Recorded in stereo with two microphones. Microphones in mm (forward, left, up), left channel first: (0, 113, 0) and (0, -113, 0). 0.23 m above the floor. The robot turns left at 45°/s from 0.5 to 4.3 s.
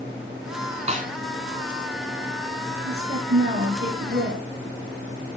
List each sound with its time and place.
0.9 s a snare drum: 30° right (ahead or behind), 1.3 m; by 1.1 s 40° right (ahead or behind), 1.3 m
2.8 s a woman speaking: 80° right, 5 m; by 4.5 s 145° right, 5 m